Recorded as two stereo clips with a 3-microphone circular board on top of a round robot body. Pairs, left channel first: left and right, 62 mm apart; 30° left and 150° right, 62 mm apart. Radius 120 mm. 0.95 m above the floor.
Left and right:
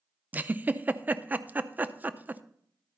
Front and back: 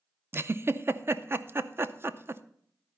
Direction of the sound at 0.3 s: 135° right.